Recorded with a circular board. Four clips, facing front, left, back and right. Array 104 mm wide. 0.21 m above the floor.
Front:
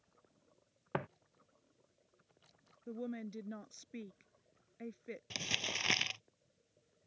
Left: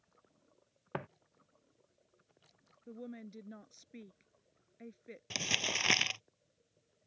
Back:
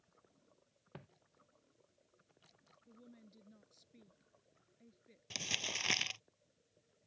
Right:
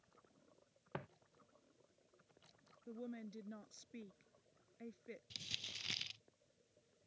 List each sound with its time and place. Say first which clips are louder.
0.9 s footsteps: left 8 dB, front 17 dB; 30° left
2.9 s a woman speaking: left 2 dB, front 18 dB; 10° left
5.3 s crumpling: left 19 dB, back 1 dB; 80° left